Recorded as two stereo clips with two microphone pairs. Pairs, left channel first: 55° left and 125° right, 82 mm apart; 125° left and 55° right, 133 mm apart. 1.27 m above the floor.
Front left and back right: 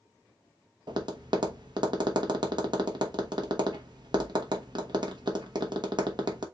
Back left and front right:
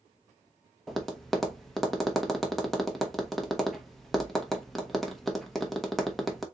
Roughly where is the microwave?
No microwave in this recording.